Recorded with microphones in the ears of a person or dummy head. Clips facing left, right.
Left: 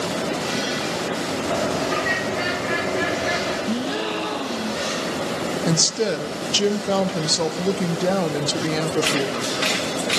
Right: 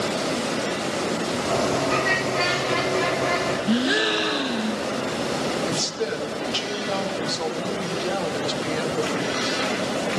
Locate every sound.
1.5 s a bird: 5° left (ahead or behind), 2.5 m
3.7 s a gasp: 15° right (ahead or behind), 0.5 m
5.7 s a woman speaking: 70° left (ahead or behind), 0.8 m